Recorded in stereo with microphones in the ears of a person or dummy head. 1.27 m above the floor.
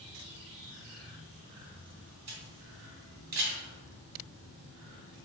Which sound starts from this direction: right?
A camera shutter, at 2.3 s.